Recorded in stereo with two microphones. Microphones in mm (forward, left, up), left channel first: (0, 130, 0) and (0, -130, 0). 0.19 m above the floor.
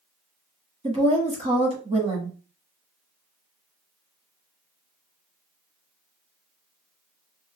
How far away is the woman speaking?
About 1.2 m.